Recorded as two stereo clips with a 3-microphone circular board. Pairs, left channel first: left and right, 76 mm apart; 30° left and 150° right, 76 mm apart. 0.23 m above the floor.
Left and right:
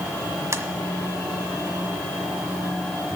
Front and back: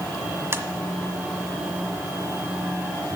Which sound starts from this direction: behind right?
Tapping, at 0.5 s.